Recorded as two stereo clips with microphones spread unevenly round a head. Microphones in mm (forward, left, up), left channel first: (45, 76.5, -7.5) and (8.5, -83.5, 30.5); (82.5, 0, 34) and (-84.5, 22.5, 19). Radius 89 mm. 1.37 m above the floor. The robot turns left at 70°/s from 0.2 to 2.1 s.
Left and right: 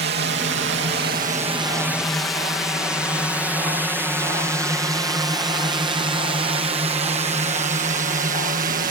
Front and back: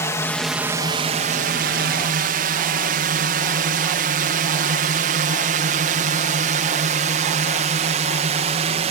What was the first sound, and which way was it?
A drone, 85° right.